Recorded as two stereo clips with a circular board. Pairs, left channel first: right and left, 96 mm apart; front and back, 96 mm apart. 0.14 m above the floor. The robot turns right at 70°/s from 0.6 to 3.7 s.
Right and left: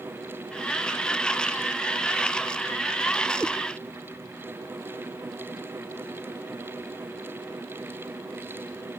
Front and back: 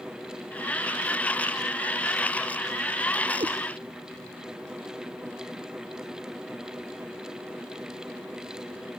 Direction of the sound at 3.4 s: 175° left.